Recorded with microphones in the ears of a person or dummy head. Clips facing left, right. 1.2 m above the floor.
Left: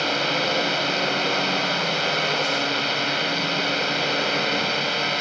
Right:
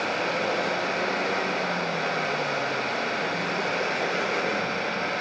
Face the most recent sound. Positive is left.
turn(degrees=45)  # may be behind; listen again after turning